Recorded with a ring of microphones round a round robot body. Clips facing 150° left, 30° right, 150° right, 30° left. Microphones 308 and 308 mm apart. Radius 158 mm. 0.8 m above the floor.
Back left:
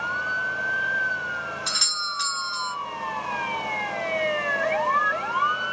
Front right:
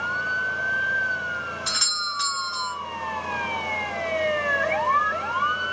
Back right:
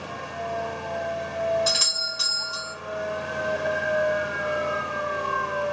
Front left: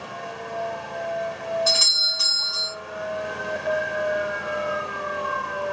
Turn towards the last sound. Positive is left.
turn(degrees=-80)